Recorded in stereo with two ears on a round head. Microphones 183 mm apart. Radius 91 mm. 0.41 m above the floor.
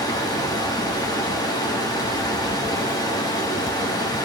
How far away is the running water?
About 0.9 m.